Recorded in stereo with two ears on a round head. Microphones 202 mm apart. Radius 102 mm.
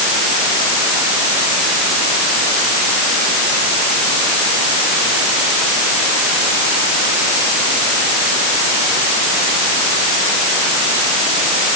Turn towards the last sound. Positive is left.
No sound to turn to.